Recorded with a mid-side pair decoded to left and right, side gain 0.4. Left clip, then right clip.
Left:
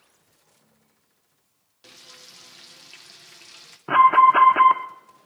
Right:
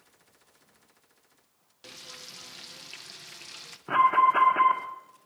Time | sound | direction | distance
1.8 | frying | 30° right | 1.2 m
3.9 | an alarm | 45° left | 1.5 m